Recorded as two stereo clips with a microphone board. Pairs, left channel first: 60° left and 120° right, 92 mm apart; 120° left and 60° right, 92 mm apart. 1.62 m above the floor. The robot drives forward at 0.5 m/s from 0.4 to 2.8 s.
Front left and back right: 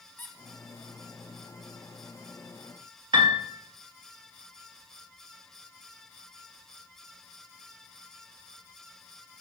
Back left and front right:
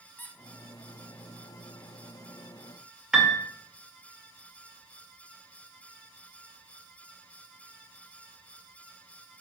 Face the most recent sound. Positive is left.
turn(degrees=-145)